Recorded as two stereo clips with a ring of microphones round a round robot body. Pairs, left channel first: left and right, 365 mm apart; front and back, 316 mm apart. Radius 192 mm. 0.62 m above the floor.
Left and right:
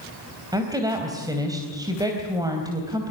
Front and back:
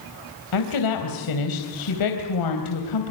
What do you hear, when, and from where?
0.5 s a woman speaking: 10° right, 3.5 m